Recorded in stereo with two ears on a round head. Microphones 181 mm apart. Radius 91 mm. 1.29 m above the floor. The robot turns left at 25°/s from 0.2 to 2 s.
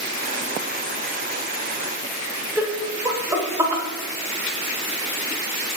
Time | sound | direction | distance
2.6 | laughter | 10° right (ahead or behind) | 0.7 m